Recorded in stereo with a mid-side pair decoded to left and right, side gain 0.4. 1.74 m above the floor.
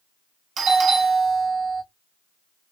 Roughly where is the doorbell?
Ahead right.